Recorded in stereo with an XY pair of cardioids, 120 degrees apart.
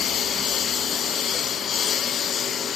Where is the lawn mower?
50° left; by 2.8 s 45° left.